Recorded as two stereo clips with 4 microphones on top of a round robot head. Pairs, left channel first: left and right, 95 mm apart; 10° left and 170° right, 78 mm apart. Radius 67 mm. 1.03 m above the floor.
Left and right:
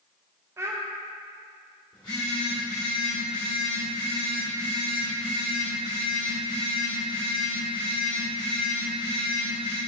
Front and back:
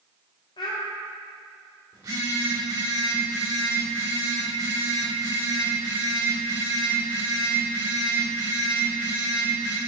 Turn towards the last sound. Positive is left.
turn(degrees=145)